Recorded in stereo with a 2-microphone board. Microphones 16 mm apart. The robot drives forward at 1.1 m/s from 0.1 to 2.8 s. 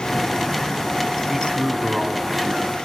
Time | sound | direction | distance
1.3 | a man speaking | 10° right (ahead or behind) | 4 m